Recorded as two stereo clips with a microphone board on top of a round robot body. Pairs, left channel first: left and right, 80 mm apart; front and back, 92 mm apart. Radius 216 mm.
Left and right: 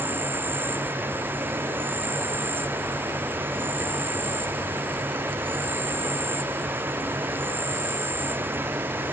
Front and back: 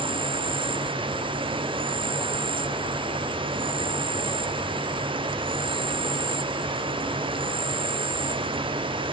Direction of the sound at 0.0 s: 155° right.